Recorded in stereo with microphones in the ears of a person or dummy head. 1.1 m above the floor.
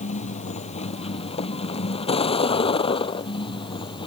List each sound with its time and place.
0.0 s a vehicle: 40° left (ahead or behind); by 4.1 s 30° left (ahead or behind)